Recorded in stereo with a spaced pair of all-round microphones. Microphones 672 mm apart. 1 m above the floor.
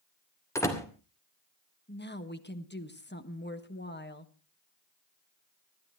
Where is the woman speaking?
15° left (ahead or behind), 1.3 m.